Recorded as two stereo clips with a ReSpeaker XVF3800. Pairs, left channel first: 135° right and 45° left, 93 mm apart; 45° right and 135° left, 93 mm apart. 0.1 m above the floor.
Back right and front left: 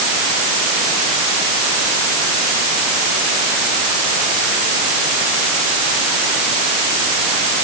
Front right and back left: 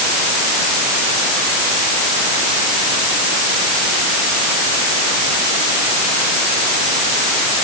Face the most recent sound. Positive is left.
No sound to turn to.